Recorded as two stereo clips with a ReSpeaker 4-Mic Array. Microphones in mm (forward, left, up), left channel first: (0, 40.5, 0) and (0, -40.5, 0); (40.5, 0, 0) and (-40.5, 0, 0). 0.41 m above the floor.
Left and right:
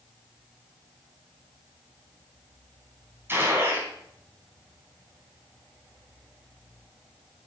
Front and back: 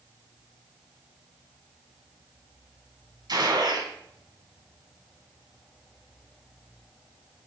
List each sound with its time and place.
3.3 s a gunshot: 150° right, 4 m